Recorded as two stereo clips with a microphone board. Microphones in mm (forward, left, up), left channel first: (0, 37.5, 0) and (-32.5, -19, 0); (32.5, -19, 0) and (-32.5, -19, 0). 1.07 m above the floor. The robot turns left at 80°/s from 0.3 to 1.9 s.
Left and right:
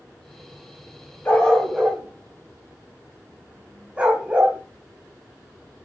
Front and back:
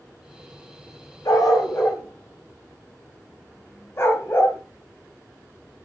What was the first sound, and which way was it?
A dog barking, 5° left.